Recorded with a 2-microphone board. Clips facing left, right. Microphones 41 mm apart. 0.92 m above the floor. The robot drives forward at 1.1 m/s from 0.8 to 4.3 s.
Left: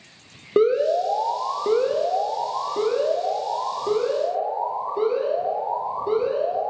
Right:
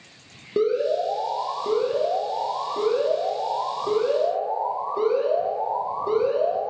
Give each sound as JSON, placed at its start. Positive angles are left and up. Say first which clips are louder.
{"t": 0.6, "sound": "an alarm", "louder": "left 3 dB", "side_deg": 50, "distance_m": 1.3}